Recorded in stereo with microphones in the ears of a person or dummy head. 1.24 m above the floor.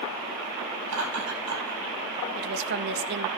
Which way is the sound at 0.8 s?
80° right.